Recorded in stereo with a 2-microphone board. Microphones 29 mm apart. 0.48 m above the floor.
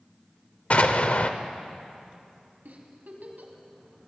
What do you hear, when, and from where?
0.7 s an explosion: 50° left (ahead or behind), 0.6 m
2.6 s a giggle: 75° right (ahead or behind), 1.5 m